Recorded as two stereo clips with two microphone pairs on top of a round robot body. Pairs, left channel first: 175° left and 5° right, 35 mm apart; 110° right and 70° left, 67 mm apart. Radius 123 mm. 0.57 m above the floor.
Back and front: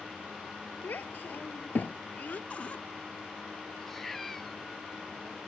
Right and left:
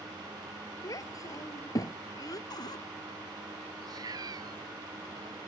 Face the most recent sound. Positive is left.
turn(degrees=90)